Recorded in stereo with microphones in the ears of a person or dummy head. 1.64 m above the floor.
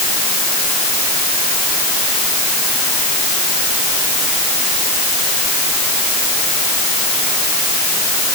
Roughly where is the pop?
No pop in this recording.